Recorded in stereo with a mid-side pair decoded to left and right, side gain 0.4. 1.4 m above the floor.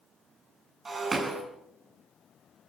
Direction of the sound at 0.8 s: 40° right.